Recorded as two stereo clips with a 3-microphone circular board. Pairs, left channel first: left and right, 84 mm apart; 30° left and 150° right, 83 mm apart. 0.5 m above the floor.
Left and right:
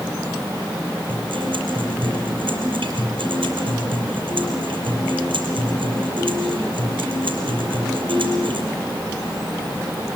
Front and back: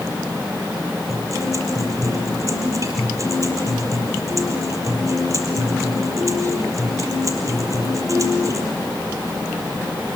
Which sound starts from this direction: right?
A guitar, at 1.1 s.